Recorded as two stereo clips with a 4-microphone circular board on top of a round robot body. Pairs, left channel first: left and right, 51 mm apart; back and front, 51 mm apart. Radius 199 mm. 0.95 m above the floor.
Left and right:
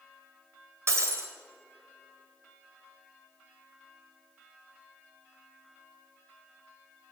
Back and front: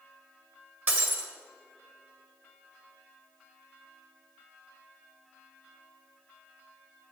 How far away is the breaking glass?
About 1.7 m.